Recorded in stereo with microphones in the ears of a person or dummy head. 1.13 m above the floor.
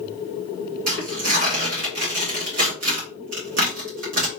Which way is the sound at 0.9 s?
55° right (ahead or behind).